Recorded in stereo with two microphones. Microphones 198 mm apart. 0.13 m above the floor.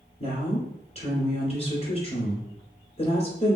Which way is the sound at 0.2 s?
30° left (ahead or behind).